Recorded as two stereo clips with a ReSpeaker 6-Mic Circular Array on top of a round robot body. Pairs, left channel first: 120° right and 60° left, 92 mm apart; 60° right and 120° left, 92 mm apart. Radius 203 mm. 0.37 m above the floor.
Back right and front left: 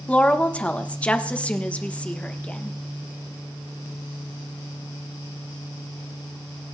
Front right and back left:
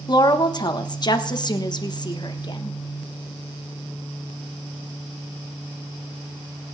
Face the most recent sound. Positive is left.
turn(degrees=-50)